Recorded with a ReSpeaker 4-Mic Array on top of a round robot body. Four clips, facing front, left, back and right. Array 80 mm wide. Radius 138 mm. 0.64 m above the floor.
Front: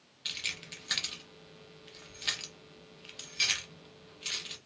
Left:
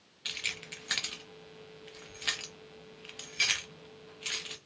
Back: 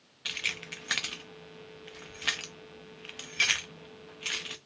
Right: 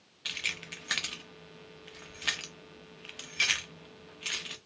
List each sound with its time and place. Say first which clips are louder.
0.2 s keys jangling: right 2 dB, back 5 dB; 160° right, 0.6 m